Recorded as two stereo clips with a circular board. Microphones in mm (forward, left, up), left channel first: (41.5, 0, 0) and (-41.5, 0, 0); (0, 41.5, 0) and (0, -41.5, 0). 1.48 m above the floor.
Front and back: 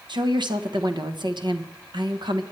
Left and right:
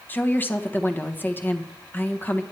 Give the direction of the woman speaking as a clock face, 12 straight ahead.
7 o'clock.